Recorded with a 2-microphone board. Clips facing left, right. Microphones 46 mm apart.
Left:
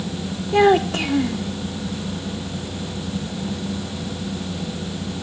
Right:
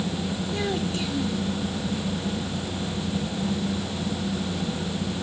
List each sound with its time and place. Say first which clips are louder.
0.5 s a child speaking: left 15 dB; 70° left (ahead or behind)